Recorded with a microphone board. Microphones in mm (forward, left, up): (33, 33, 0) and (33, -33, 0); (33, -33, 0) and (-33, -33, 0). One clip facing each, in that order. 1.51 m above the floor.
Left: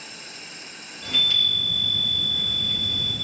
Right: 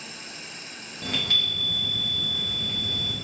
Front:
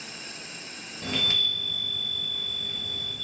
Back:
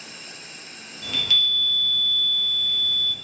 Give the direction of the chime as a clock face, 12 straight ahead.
2 o'clock.